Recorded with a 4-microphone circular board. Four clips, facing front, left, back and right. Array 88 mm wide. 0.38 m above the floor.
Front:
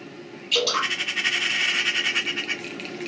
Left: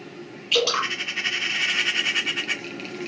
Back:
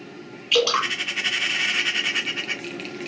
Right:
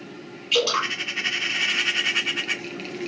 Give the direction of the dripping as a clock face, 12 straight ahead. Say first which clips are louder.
Even, back 4 dB; 6 o'clock.